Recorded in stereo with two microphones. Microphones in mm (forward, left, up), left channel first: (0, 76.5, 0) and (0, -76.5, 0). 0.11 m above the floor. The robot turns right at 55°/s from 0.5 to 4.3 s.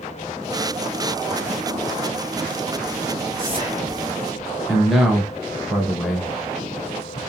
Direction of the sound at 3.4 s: 70° right.